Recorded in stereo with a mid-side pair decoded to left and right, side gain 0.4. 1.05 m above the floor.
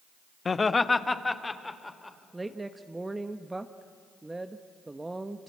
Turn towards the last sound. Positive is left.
turn(degrees=-15)